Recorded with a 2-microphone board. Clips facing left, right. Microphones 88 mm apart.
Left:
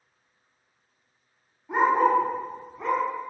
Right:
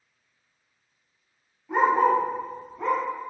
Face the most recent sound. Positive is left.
turn(degrees=0)  # may be behind; listen again after turning